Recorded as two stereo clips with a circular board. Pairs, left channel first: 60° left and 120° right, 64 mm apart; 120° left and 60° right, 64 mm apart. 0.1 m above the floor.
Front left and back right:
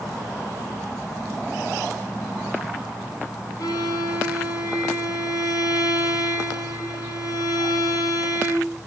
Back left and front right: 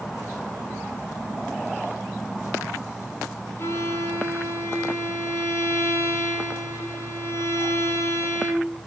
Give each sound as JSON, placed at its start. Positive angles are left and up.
{"t": 3.6, "sound": "a violin", "azimuth_deg": 70, "distance_m": 4.0}